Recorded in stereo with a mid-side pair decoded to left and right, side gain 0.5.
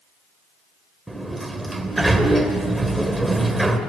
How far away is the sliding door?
About 2.5 m.